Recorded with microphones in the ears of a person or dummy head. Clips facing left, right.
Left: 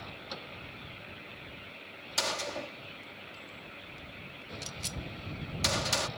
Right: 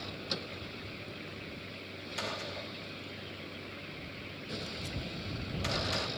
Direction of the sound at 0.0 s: 30° right (ahead or behind).